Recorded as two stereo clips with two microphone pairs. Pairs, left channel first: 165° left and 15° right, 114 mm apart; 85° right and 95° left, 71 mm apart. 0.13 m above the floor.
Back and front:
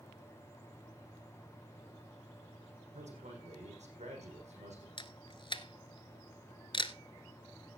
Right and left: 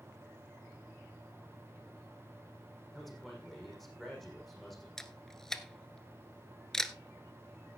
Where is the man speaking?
5° left, 5.5 m.